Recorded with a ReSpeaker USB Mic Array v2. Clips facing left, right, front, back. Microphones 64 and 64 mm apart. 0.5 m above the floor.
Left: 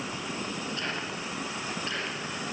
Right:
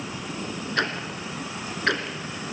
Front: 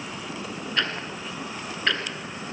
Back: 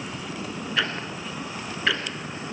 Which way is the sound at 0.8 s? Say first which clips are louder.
Right 6 dB, back 1 dB; 95° right.